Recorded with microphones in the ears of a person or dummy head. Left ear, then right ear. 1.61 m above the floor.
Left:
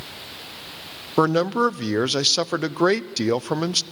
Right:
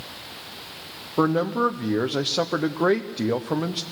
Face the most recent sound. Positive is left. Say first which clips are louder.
# left 3 dB
turn(degrees=85)